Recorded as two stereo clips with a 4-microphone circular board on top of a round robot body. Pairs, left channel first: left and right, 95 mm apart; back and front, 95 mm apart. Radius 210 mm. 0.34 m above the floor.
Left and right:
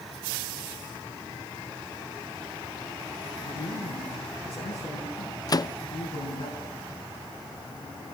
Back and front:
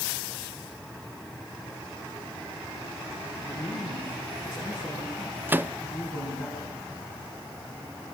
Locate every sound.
3.4 s a man speaking: 85° left, 5 m
5.5 s a microwave: 65° left, 0.8 m